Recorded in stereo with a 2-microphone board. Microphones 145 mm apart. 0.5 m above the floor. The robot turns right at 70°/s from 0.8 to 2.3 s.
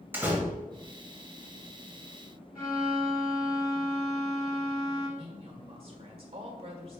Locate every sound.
0.1 s a door slam: 10° right (ahead or behind), 1.6 m
2.5 s a violin: 75° left (ahead or behind), 3 m
5.2 s a woman speaking: 40° right (ahead or behind), 1.7 m